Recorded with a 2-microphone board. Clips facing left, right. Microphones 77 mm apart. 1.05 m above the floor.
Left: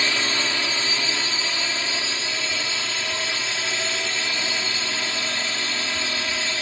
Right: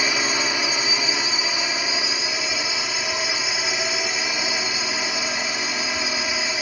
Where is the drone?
15° right (ahead or behind).